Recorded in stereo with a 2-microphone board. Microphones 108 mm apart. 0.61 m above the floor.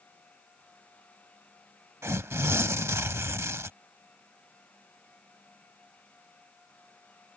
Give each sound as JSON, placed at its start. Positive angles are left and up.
{"t": 2.0, "sound": "tearing paper", "side_deg": -25}